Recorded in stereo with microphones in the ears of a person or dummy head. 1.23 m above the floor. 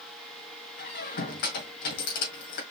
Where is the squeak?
50° left (ahead or behind), 1.9 m.